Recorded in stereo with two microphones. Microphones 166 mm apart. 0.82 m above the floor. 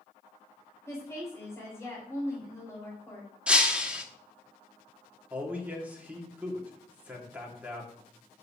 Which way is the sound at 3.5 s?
5° right (ahead or behind).